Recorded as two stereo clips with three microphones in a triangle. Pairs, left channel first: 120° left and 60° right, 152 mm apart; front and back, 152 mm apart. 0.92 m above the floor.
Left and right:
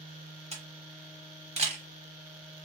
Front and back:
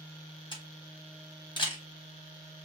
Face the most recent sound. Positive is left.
turn(degrees=-40)